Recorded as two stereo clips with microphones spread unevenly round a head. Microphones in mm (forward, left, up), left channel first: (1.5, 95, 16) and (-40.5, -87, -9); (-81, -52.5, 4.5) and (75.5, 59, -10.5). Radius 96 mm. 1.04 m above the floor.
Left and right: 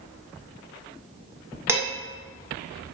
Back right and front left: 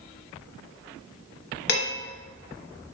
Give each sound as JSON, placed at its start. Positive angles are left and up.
{"t": 1.7, "sound": "dishes clattering", "azimuth_deg": 180, "distance_m": 0.7}